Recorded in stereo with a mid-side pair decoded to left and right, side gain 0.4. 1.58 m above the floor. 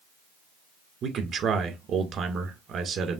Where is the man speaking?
70° right, 1.7 m.